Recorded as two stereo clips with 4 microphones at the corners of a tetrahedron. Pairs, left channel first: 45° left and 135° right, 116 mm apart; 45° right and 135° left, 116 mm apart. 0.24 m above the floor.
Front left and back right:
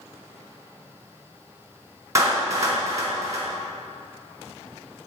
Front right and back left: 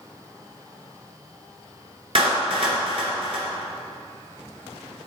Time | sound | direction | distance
2.1 | a clap | 165° left | 2.5 m